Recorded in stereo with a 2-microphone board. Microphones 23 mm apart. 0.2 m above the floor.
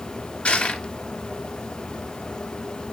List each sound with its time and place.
0.5 s crushing: 60° left (ahead or behind), 2.5 m